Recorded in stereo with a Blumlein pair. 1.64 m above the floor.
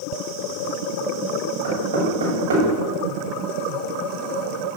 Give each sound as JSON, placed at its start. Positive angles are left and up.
{"t": 1.6, "sound": "knocking", "azimuth_deg": -65, "distance_m": 7.0}